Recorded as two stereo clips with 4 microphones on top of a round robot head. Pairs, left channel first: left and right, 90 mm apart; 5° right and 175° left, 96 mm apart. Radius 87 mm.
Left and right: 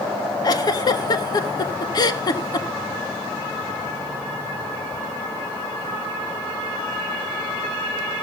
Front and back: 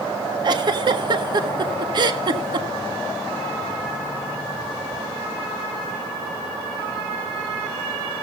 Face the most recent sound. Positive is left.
turn(degrees=135)